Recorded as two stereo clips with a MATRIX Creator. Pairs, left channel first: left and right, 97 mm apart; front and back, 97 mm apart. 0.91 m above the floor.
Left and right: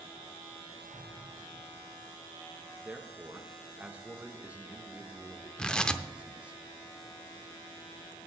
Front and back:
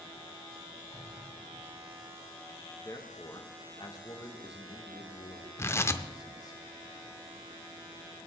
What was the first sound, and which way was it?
An explosion, 65° left.